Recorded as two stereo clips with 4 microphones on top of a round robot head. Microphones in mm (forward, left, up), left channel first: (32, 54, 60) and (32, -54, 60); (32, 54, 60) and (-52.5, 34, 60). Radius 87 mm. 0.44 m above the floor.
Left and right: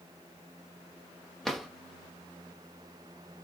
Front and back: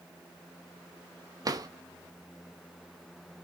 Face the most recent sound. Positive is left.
turn(degrees=175)